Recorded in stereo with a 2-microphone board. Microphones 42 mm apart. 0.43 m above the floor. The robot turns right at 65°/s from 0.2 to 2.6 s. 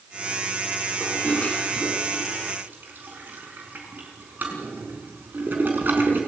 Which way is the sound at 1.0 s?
55° left (ahead or behind).